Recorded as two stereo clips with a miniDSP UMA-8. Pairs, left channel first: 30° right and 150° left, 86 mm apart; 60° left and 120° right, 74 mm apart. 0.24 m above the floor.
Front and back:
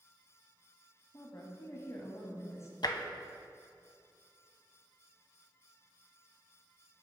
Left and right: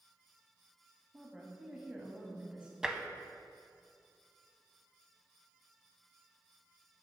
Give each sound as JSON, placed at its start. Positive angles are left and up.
{"t": 1.1, "sound": "a woman speaking", "azimuth_deg": -55, "distance_m": 1.2}
{"t": 2.8, "sound": "tapping", "azimuth_deg": -40, "distance_m": 0.5}